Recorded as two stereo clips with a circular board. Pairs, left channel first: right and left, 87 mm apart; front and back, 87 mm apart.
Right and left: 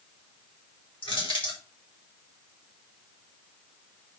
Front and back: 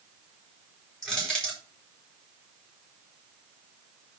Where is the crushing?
80° right, 4.5 m.